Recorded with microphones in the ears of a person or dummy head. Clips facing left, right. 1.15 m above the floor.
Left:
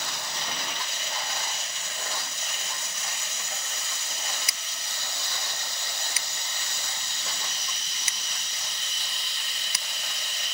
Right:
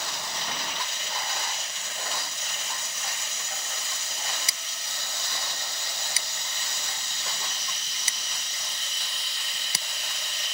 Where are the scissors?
25° right (ahead or behind).